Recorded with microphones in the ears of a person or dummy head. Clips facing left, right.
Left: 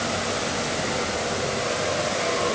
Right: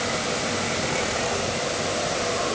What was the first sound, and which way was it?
Only background noise.